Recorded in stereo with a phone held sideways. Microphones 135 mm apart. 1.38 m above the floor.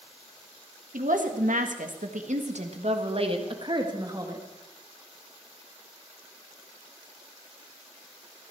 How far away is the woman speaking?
About 1.8 m.